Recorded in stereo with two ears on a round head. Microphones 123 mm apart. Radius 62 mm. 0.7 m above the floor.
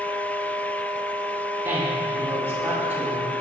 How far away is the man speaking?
About 2.5 m.